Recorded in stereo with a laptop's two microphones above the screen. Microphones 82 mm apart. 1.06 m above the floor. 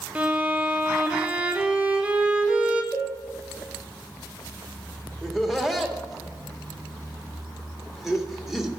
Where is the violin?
15° right (ahead or behind), 0.8 m.